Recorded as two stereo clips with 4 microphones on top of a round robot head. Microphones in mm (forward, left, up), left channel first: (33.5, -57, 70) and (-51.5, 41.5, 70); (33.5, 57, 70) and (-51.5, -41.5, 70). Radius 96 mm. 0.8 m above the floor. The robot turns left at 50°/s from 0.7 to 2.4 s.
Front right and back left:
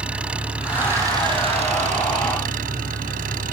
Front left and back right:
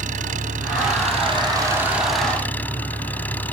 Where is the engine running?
150° right; by 3.5 s 125° left.